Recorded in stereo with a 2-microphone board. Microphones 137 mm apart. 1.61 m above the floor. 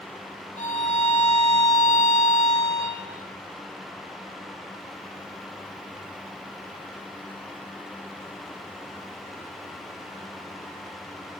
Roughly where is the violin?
Left.